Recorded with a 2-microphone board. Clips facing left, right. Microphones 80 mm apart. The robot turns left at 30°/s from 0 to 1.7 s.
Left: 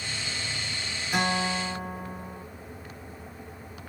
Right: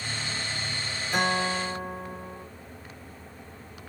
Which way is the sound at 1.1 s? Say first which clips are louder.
Right 1 dB; 10° left (ahead or behind).